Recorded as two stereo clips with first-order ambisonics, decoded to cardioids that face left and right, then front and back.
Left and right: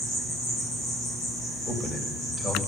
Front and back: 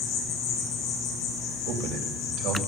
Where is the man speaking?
160° left, 2.5 m.